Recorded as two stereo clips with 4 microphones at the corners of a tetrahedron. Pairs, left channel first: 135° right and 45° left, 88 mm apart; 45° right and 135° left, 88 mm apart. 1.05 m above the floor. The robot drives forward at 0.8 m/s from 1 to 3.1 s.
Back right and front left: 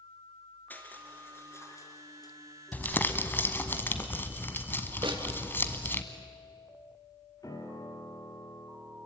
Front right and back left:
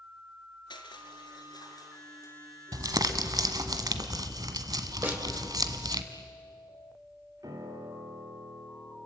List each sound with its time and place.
0.7 s crushing: 65° right, 2.5 m; by 2.4 s 100° right, 2 m
2.7 s crumpling: 160° left, 1.3 m; by 6.0 s 165° left, 1.5 m
5.0 s a snare drum: 65° left, 3.5 m
7.4 s a piano: 175° left, 2.5 m